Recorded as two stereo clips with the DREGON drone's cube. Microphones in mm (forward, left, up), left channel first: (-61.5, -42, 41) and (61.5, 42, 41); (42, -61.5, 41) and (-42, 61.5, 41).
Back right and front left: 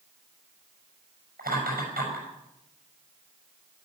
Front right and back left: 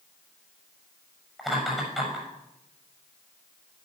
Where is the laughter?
35° left, 6.5 m.